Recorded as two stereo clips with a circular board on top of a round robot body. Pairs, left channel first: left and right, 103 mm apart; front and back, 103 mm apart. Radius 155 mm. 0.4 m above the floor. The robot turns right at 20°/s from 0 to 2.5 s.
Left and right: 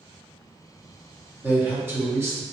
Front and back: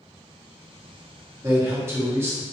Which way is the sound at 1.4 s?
150° right.